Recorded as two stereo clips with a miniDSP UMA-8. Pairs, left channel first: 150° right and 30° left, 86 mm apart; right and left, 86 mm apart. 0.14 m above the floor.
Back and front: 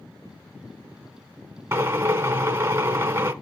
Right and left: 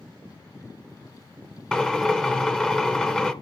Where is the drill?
15° right, 0.6 m.